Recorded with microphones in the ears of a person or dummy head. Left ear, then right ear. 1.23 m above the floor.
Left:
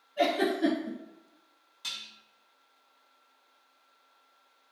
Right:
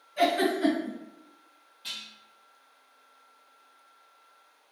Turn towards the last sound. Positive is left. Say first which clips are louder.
# even
turn(degrees=65)  # may be behind; listen again after turning